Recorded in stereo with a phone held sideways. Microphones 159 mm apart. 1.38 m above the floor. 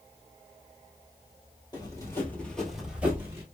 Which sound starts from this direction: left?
Running footsteps, at 1.7 s.